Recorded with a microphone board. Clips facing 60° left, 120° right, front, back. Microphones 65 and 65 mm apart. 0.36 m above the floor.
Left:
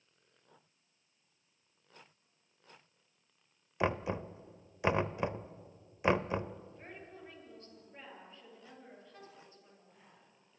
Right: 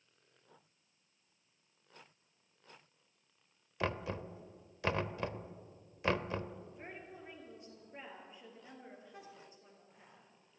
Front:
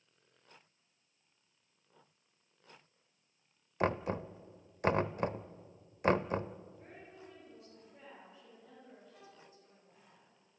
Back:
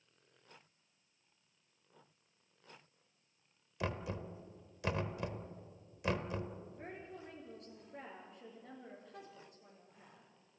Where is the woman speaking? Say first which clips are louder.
Right 1 dB, back 4 dB; 165° left, 8 m.